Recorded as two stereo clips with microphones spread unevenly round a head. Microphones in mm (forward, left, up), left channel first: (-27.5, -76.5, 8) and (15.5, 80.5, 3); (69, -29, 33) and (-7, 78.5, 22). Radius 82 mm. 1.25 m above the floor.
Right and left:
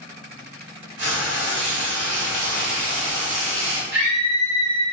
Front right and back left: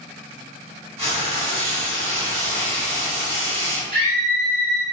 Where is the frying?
85° left, 1.7 m.